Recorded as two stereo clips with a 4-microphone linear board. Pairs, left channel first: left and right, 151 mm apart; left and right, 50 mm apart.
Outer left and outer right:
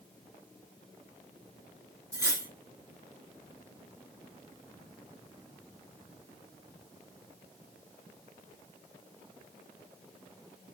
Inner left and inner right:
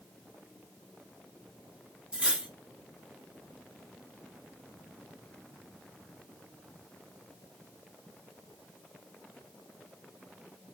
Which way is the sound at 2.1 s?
15° right (ahead or behind).